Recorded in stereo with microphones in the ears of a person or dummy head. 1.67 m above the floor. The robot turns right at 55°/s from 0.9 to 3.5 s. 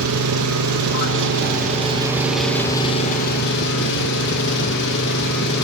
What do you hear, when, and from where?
0.0 s an engine running: 80° right, 2 m; by 5.6 s 60° left, 2 m